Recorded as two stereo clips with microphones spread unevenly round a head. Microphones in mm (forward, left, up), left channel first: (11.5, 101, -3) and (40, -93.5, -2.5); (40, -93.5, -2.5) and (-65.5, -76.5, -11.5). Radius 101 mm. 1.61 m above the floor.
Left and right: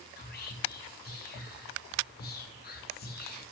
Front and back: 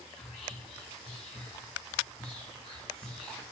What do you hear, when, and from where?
0.2 s whispering: 55° left, 1.0 m